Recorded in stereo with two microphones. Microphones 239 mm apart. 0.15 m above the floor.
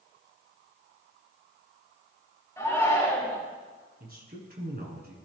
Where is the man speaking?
40° right (ahead or behind), 1.7 m.